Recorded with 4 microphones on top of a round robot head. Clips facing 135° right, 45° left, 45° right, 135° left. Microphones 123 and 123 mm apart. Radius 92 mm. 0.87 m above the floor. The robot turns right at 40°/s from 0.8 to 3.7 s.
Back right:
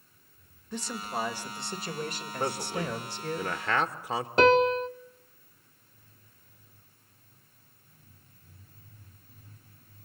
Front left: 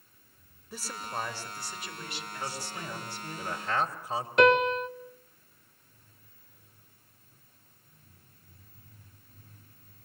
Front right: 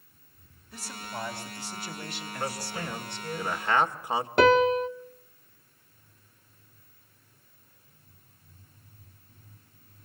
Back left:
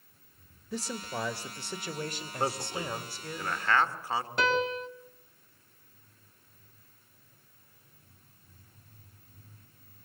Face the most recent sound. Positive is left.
turn(degrees=-75)